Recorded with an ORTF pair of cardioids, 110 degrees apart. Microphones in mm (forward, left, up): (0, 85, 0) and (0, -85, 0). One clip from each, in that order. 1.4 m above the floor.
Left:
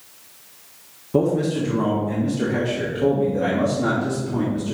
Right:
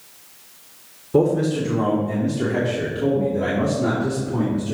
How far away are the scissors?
No scissors in this recording.